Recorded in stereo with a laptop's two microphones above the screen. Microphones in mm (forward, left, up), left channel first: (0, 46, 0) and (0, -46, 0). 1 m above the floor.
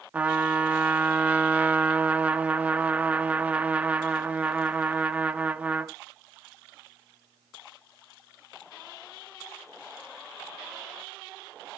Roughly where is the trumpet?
Centre.